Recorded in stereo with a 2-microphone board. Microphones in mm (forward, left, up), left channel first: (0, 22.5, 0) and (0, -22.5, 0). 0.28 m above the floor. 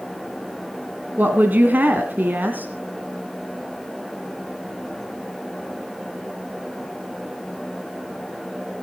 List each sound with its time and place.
1.2 s a woman speaking: 45° right (ahead or behind), 2 m